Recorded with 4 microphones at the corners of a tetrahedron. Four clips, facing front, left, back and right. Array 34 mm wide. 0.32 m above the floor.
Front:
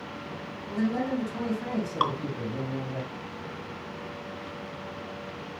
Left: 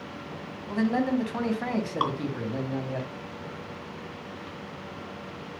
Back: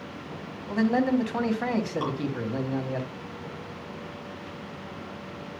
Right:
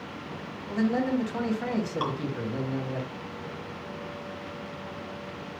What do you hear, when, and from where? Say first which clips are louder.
0.7 s a man speaking: left 1 dB, back 5 dB; 160° left, 2 m
2.0 s dripping: left 6 dB, front 4 dB; 30° left, 3 m